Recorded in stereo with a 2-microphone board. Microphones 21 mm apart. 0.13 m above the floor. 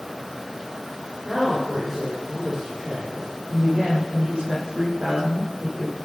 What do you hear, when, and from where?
1.2 s a woman speaking: 30° right (ahead or behind), 7.5 m
3.5 s a woman speaking: 60° right (ahead or behind), 6.5 m